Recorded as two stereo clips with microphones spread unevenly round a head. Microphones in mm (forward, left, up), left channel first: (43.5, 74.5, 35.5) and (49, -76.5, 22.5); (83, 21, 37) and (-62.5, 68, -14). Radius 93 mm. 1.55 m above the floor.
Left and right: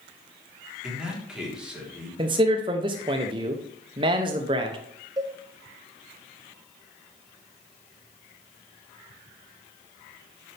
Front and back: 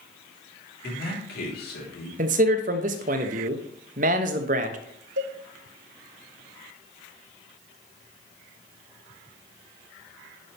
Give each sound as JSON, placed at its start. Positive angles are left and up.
{"t": 0.8, "sound": "a man speaking", "azimuth_deg": 0, "distance_m": 3.5}
{"t": 2.2, "sound": "a man speaking", "azimuth_deg": -155, "distance_m": 0.8}
{"t": 5.2, "sound": "a cowbell", "azimuth_deg": -160, "distance_m": 1.0}